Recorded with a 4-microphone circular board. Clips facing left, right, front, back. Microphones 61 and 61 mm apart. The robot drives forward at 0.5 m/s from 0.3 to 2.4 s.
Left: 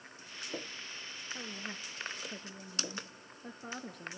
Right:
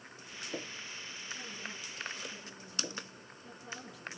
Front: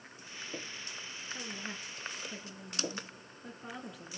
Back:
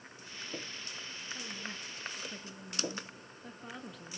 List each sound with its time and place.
1.3 s a woman speaking: 65° left, 2.5 m; by 4.2 s 85° left, 2.5 m